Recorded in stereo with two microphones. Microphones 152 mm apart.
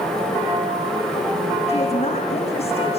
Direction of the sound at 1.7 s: 45° left (ahead or behind).